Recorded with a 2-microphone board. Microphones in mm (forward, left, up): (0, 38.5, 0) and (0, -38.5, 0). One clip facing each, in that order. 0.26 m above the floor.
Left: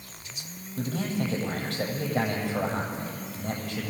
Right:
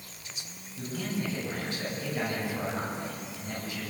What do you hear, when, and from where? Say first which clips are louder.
0.8 s a man speaking: left 4 dB; 75° left (ahead or behind), 8 m